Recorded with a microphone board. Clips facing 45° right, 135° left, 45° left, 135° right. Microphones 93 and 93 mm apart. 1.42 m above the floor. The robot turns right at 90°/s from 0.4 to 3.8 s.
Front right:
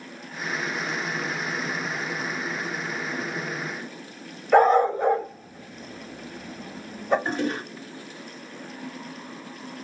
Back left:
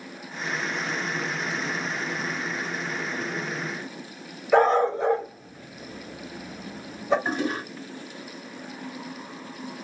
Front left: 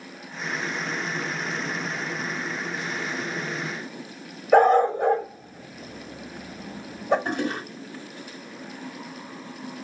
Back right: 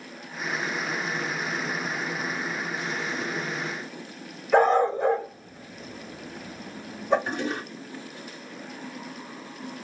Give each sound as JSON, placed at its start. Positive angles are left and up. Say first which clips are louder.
{"t": 4.5, "sound": "a dog barking", "louder": "front right 2 dB, front left 3 dB", "azimuth_deg": 40, "distance_m": 2.0}
{"t": 7.2, "sound": "a toilet flushing", "louder": "even, front left 2 dB", "azimuth_deg": 55, "distance_m": 2.0}